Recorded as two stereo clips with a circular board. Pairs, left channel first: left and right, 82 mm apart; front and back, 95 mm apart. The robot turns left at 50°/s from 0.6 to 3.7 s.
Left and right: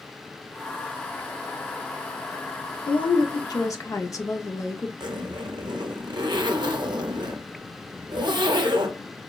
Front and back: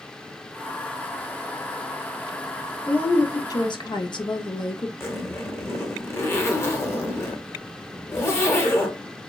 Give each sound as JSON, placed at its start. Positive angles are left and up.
{"t": 2.9, "sound": "a woman speaking", "azimuth_deg": 80, "distance_m": 0.5}
{"t": 5.0, "sound": "a zipper", "azimuth_deg": -60, "distance_m": 0.6}